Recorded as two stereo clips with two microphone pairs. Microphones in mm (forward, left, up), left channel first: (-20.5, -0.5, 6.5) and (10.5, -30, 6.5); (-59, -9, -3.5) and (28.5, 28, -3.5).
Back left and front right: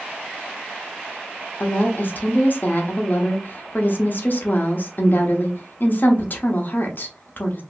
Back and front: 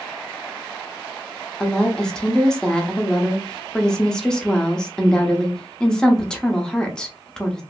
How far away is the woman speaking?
About 0.8 m.